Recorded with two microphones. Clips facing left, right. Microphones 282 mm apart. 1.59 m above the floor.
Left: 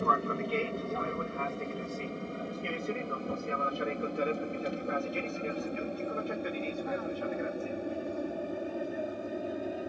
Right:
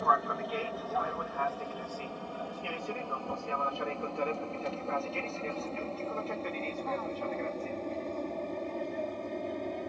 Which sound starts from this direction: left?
An aircraft, at 0.0 s.